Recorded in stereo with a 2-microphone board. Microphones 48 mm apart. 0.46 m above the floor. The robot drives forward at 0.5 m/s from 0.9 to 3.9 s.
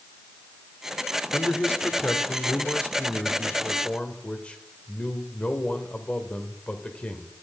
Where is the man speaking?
35° left (ahead or behind), 1.3 m; by 7.3 s 25° left (ahead or behind), 1.7 m.